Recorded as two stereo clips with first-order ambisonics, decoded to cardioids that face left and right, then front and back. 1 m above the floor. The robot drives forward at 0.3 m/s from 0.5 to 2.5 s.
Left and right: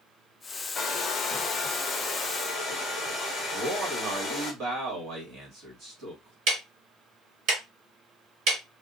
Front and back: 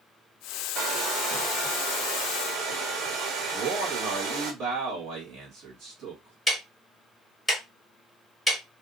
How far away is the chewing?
I don't hear chewing.